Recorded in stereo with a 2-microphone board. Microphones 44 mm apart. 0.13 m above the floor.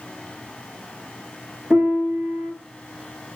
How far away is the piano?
About 2 m.